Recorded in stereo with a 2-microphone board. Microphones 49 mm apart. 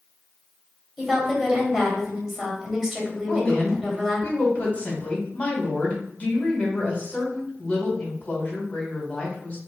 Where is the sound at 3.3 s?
30° left (ahead or behind), 1.4 m.